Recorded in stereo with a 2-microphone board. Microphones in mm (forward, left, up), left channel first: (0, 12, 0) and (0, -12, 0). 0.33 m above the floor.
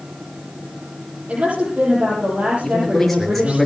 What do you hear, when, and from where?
1.3 s a woman speaking: 55° right (ahead or behind), 9.5 m
2.6 s a man speaking: 10° left (ahead or behind), 6.5 m